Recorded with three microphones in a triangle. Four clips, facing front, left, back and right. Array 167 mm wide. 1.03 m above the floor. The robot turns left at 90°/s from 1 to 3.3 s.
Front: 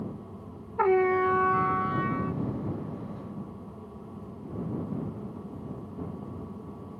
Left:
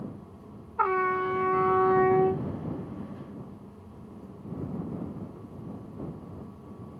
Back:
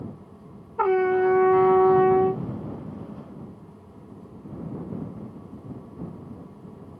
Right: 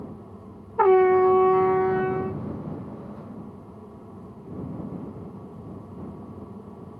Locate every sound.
0.8 s a trumpet: 95° right; by 2.4 s 135° left